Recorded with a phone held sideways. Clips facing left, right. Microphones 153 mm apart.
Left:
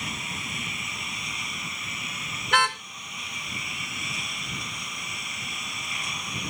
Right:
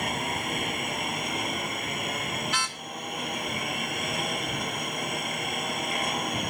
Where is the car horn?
65° left (ahead or behind).